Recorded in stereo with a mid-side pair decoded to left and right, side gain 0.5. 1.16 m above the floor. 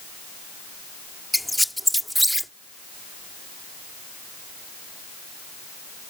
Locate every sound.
1.3 s a squeak: 5° right